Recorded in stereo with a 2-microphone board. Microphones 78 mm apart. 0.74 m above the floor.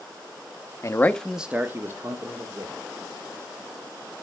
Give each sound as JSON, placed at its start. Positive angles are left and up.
{"t": 0.8, "sound": "a man speaking", "side_deg": 40, "distance_m": 0.7}